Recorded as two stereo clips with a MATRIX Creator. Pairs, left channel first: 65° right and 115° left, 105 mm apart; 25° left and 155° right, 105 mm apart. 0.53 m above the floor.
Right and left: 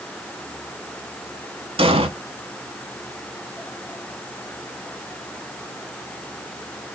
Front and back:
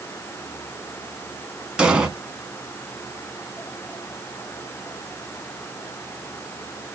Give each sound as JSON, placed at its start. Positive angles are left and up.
{"t": 1.8, "sound": "an explosion", "azimuth_deg": 125, "distance_m": 0.8}